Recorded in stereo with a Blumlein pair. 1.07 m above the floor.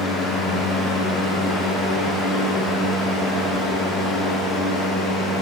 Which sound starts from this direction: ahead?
A fan, at 0.0 s.